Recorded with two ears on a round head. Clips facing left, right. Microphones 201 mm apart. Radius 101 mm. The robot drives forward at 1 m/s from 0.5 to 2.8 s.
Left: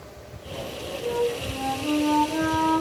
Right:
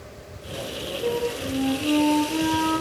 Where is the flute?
50° right (ahead or behind), 5 m; by 2.8 s 40° right (ahead or behind), 6 m.